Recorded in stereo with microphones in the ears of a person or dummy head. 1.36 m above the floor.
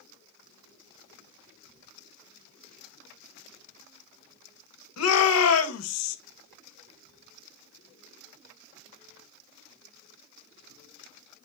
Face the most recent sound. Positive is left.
turn(degrees=80)